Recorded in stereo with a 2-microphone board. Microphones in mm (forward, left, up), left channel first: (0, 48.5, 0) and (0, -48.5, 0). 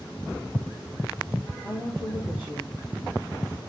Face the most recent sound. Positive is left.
turn(degrees=0)  # may be behind; listen again after turning